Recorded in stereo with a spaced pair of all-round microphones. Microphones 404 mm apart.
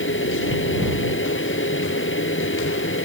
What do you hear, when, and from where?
0.0 s a fan: 30° left (ahead or behind)